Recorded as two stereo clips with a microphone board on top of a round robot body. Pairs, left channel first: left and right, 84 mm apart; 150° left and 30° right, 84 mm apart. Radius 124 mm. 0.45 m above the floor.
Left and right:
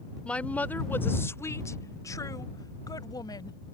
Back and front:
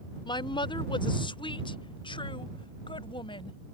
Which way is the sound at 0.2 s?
165° left.